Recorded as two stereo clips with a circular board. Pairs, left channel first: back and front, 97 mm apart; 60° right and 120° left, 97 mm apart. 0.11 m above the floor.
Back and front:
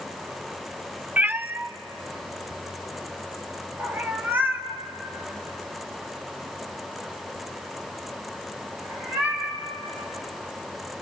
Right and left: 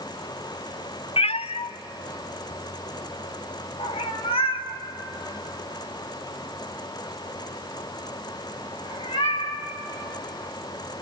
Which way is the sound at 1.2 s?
75° right.